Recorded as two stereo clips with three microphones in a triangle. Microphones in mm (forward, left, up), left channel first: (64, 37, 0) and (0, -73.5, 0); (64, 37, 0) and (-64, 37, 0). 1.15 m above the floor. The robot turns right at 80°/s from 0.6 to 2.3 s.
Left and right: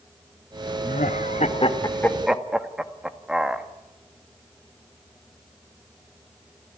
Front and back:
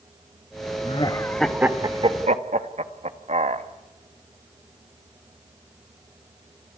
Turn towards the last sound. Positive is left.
turn(degrees=155)